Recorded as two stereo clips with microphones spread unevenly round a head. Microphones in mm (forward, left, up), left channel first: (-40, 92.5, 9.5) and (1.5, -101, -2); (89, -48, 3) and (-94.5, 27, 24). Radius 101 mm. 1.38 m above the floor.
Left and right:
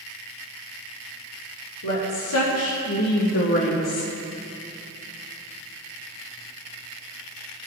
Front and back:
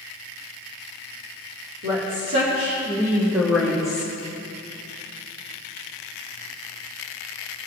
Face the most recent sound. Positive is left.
turn(degrees=45)